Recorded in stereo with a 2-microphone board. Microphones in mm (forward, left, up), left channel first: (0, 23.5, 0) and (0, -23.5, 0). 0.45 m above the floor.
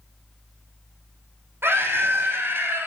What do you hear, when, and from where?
1.6 s a scream: 60° right (ahead or behind), 3 m